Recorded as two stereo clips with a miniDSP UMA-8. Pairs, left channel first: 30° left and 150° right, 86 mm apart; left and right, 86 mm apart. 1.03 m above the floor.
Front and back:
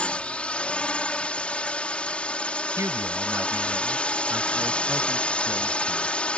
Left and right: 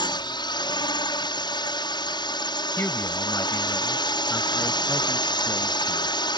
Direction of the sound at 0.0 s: 105° left.